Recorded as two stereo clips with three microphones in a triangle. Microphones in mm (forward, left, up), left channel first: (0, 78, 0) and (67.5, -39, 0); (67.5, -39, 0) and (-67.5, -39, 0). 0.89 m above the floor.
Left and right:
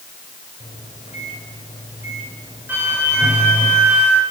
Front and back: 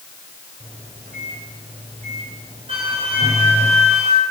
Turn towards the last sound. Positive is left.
turn(degrees=-135)